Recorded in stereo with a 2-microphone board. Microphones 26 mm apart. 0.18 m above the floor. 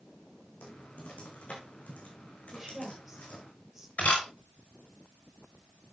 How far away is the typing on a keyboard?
About 4 m.